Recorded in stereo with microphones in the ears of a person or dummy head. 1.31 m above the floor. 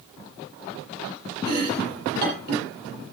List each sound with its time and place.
1.4 s chopping: 55° right (ahead or behind), 6 m